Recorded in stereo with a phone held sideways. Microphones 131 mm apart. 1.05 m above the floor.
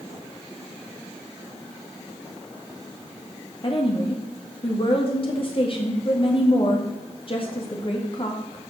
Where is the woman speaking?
45° left (ahead or behind), 1.7 m.